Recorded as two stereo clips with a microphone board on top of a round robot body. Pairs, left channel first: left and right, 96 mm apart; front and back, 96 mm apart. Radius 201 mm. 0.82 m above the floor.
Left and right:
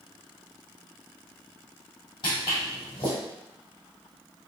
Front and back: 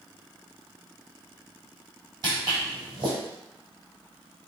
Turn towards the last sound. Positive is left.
turn(degrees=140)